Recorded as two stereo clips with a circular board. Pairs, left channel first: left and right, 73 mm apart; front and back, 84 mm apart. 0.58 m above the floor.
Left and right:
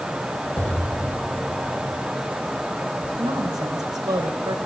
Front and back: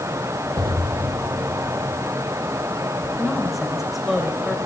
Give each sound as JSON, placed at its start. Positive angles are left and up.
{"t": 0.6, "sound": "an explosion", "azimuth_deg": 155, "distance_m": 1.9}
{"t": 3.2, "sound": "a woman speaking", "azimuth_deg": -90, "distance_m": 3.0}